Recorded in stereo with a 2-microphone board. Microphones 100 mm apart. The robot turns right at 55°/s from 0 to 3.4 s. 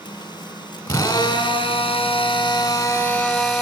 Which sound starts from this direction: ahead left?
A drill, at 0.9 s.